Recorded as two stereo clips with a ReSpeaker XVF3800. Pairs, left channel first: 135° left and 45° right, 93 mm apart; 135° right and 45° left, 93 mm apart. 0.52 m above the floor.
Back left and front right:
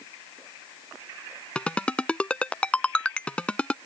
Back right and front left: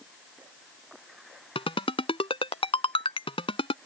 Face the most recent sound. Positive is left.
turn(degrees=-145)